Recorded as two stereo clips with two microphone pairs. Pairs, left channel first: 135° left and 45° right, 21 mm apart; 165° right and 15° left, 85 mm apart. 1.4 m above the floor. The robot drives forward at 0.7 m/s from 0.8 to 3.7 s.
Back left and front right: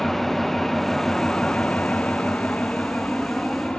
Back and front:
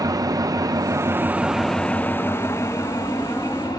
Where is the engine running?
55° left, 0.8 m; by 3.8 s 160° left, 1.8 m.